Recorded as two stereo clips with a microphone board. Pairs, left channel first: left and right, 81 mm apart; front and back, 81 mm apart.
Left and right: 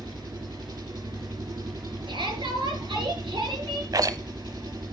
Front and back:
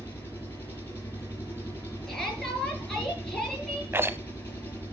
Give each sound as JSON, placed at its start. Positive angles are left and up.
{"t": 0.0, "sound": "an engine running", "azimuth_deg": -65, "distance_m": 4.0}
{"t": 2.1, "sound": "a shout", "azimuth_deg": -85, "distance_m": 4.5}
{"t": 3.9, "sound": "a rattle", "azimuth_deg": -125, "distance_m": 0.7}